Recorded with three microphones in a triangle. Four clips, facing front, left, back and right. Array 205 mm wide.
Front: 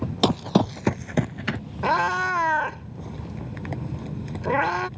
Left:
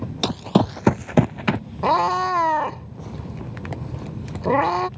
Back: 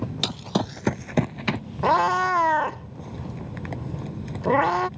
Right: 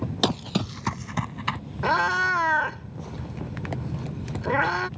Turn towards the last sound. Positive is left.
turn(degrees=125)